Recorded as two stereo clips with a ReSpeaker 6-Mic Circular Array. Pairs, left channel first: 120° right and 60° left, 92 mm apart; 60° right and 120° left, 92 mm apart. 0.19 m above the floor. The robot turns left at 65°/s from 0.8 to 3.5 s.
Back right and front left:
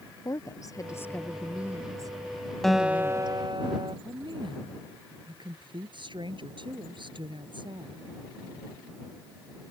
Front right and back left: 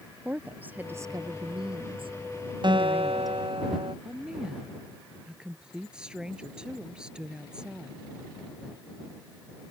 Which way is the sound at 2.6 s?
155° left.